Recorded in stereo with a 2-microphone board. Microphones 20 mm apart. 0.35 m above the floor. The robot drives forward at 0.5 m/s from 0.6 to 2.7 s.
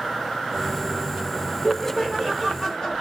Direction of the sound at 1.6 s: 15° left (ahead or behind).